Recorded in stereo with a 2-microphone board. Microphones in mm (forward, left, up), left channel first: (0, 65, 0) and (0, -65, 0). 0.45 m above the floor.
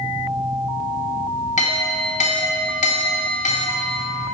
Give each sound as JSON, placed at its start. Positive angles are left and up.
{"t": 1.6, "sound": "a clink", "side_deg": 65, "distance_m": 1.3}